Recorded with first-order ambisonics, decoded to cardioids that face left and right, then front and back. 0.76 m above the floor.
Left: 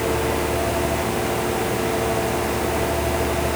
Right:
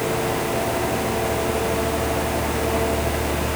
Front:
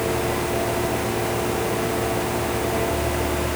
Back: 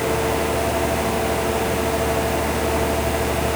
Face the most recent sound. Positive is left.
No sound to turn to.